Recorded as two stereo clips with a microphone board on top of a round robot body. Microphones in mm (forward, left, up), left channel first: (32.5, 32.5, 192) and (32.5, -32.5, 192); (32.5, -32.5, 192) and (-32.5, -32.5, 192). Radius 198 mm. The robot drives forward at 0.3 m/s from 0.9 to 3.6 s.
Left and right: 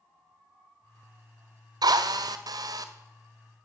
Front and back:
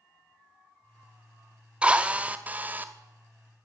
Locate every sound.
1.8 s a drill: 105° right, 1.6 m; by 2.9 s 115° right, 1.8 m